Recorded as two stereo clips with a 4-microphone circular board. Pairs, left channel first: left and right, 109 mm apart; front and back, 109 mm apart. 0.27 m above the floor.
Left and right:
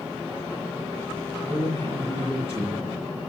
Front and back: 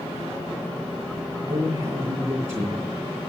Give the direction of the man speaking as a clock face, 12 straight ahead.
4 o'clock.